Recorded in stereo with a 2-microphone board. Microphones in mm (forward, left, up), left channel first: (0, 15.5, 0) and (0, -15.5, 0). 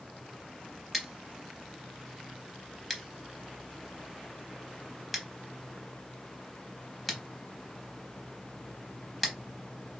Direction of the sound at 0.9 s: 5° left (ahead or behind).